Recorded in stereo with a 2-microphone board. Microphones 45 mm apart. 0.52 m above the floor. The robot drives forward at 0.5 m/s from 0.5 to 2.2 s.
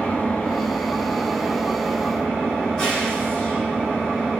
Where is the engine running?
30° left (ahead or behind), 0.8 m; by 4.4 s 15° left (ahead or behind), 1.5 m.